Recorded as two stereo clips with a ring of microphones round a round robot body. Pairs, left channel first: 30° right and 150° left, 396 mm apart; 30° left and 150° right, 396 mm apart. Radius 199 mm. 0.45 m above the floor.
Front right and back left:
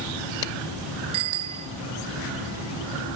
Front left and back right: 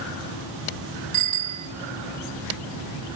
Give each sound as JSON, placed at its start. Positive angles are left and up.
{"t": 1.1, "sound": "a bicycle bell", "azimuth_deg": 160, "distance_m": 2.5}